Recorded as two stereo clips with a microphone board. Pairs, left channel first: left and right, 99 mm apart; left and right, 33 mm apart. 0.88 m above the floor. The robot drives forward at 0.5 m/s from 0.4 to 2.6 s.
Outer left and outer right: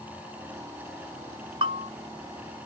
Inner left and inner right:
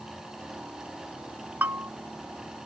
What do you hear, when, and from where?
1.6 s a bell: 65° right (ahead or behind); by 1.9 s 60° right (ahead or behind)